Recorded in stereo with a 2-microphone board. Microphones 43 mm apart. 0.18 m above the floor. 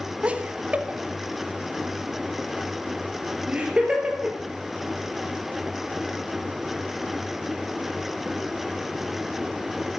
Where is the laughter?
30° right (ahead or behind), 1.1 m; by 4.4 s 25° right (ahead or behind), 3.5 m.